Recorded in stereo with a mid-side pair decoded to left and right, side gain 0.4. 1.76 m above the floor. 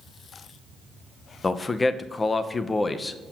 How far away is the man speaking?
About 0.9 m.